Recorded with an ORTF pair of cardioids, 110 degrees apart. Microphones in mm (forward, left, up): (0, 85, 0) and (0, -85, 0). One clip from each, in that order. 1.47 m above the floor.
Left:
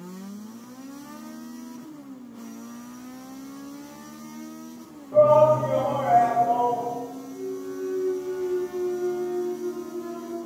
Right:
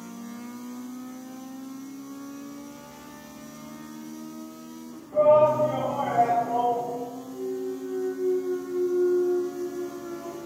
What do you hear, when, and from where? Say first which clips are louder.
5.1 s a shout: left 2 dB; 60° left, 1.1 m
7.3 s a clunk: right 2 dB; 60° left, 1.7 m